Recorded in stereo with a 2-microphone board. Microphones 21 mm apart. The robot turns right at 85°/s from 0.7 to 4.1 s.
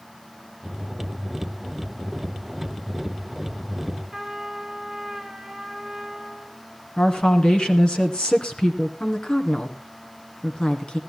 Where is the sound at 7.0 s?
50° left (ahead or behind), 2 m.